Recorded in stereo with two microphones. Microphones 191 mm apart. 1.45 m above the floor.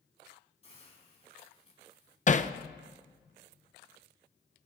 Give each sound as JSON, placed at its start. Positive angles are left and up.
{"t": 0.6, "sound": "a hiss", "side_deg": 35, "distance_m": 3.5}
{"t": 2.3, "sound": "hammering", "side_deg": 40, "distance_m": 0.6}